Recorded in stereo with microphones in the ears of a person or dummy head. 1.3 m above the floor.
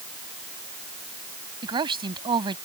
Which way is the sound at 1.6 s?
30° right (ahead or behind).